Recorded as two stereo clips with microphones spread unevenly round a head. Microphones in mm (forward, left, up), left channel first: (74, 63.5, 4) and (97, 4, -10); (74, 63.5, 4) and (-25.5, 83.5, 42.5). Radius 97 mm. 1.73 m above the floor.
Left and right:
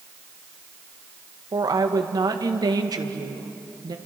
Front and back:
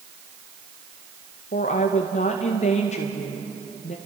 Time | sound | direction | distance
1.5 | a woman speaking | 50° right | 1.9 m